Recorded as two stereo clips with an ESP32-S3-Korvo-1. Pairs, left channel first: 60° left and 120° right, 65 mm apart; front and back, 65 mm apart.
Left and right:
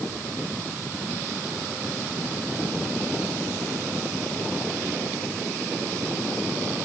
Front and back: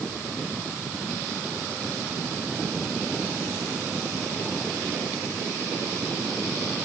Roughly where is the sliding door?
I don't hear a sliding door.